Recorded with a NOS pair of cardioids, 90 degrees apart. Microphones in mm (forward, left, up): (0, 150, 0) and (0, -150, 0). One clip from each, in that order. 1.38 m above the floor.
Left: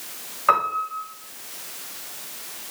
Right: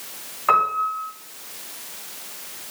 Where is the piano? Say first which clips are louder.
Right 2 dB; 5° left, 6 m.